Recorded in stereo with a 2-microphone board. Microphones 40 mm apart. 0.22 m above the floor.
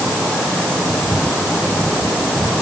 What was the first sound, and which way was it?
Only background noise.